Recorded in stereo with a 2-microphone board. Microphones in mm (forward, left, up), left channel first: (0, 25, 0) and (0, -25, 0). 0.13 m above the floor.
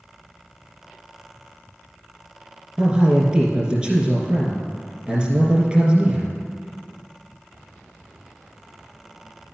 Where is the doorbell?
I don't hear a doorbell.